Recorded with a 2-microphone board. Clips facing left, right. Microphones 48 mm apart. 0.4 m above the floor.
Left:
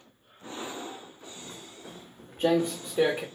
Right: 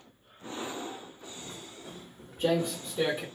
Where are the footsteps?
15° left (ahead or behind), 1.4 m; by 3.2 s 65° left (ahead or behind), 1.4 m.